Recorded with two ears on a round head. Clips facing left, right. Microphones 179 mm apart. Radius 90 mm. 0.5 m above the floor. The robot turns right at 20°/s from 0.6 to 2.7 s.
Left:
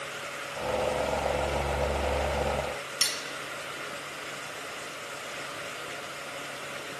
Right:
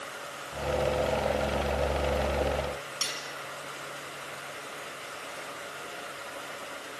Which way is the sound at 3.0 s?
30° left (ahead or behind).